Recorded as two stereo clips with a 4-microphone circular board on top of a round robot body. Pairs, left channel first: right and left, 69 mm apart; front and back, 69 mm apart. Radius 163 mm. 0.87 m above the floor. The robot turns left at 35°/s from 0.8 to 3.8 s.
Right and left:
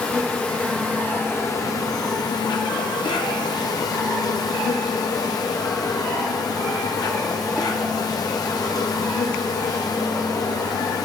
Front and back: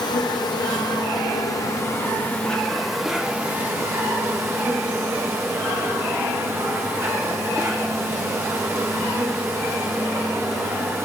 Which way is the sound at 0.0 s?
15° right.